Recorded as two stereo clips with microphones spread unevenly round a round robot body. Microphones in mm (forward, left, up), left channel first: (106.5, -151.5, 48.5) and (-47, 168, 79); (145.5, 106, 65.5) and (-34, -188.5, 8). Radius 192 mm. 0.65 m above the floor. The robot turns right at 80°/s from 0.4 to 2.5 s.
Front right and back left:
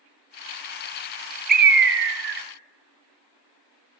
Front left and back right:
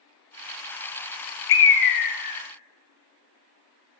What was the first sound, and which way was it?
A bird, 70° left.